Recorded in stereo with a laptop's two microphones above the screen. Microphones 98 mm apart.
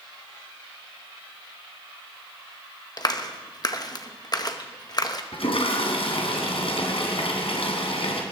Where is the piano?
I don't hear a piano.